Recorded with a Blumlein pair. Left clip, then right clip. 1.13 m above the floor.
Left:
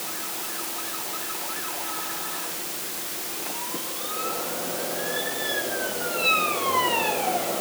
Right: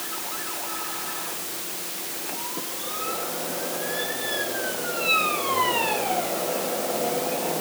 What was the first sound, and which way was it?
Only background noise.